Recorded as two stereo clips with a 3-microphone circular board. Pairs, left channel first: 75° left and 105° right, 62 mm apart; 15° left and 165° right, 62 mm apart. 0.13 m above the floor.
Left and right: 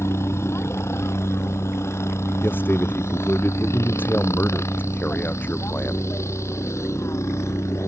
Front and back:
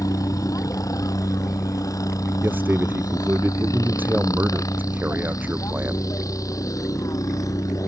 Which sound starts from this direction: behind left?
A man speaking, at 2.4 s.